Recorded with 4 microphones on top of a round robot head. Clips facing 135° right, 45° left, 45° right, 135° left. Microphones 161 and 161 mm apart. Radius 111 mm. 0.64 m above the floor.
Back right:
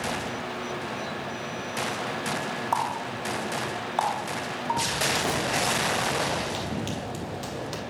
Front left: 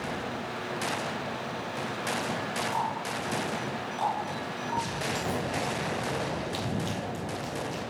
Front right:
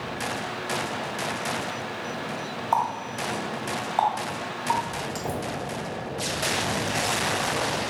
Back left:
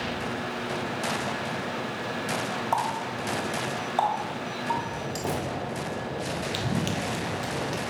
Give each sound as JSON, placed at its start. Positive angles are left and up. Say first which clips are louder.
{"t": 2.7, "sound": "a running tap", "louder": "back right 2 dB, front right 4 dB", "azimuth_deg": -160, "distance_m": 2.5}
{"t": 5.2, "sound": "knocking", "louder": "back right 2 dB, back left 2 dB", "azimuth_deg": 170, "distance_m": 2.0}
{"t": 6.5, "sound": "running footsteps", "louder": "back right 1 dB, even", "azimuth_deg": 125, "distance_m": 1.1}